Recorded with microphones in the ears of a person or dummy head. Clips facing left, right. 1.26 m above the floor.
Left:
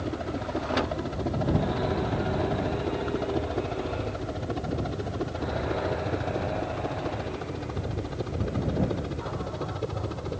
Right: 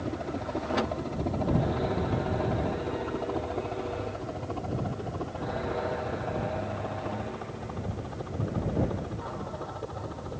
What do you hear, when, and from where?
0.0 s a helicopter: 15° left (ahead or behind); by 10.4 s 40° left (ahead or behind)